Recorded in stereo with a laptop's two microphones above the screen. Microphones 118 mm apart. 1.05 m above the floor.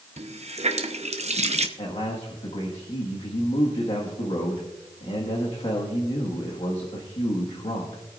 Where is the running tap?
70° right (ahead or behind), 0.8 m.